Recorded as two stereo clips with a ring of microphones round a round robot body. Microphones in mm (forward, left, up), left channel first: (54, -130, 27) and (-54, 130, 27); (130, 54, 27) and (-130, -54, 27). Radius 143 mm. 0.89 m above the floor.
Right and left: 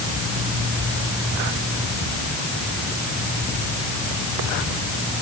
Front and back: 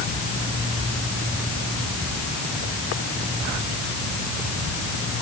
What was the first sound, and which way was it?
Only background noise.